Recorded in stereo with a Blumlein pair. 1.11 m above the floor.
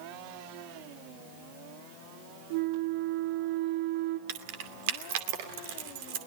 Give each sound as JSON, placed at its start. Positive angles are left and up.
{"t": 2.5, "sound": "a flute", "azimuth_deg": -50, "distance_m": 2.5}
{"t": 4.3, "sound": "keys jangling", "azimuth_deg": -50, "distance_m": 2.5}